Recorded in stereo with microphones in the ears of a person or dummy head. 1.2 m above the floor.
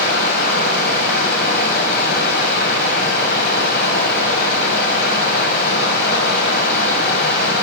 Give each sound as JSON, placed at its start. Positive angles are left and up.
{"t": 0.0, "sound": "running water", "side_deg": 60, "distance_m": 2.5}